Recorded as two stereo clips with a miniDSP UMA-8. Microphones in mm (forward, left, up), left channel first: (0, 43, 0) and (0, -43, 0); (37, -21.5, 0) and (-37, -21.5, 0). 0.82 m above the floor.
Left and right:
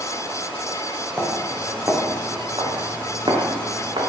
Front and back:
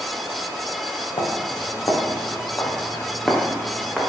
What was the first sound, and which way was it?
Footsteps, 20° right.